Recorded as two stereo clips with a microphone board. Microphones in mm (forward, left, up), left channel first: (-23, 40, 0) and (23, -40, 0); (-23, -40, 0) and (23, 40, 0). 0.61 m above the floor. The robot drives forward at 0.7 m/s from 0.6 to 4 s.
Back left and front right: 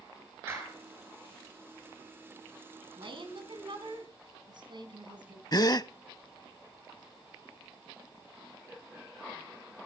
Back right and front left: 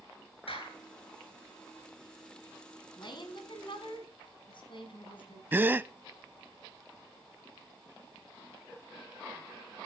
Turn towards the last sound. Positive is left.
turn(degrees=115)